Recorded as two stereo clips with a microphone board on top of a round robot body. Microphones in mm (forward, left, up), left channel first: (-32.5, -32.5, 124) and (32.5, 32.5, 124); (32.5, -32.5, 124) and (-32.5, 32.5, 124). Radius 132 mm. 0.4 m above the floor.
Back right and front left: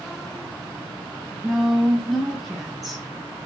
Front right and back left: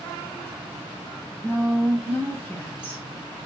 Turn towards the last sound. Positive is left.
turn(degrees=-40)